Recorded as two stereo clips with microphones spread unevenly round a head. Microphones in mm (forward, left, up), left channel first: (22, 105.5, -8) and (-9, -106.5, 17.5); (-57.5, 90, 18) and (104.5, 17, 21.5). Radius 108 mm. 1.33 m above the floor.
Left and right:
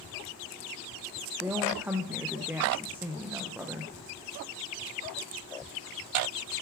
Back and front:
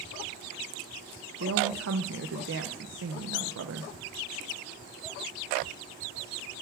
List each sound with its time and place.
1.4 s a woman speaking: 15° right, 0.6 m